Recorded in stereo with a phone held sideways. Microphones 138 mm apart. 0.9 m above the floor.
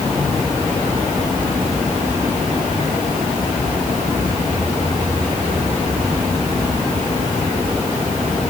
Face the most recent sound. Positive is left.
No sound to turn to.